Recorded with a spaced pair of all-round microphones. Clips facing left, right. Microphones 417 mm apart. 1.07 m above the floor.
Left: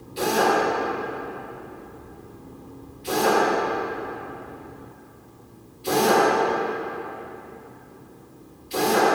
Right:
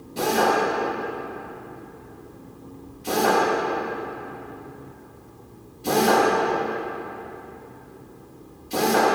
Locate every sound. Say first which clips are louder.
0.2 s a drill: even; 60° right (ahead or behind), 1.9 m